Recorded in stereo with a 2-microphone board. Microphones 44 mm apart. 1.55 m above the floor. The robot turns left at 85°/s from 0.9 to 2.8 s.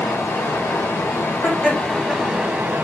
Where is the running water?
100° left, 1.2 m; by 2.9 s 60° right, 1.2 m.